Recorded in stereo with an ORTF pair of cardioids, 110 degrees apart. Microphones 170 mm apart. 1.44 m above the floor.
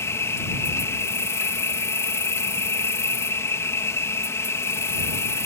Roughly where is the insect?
Ahead.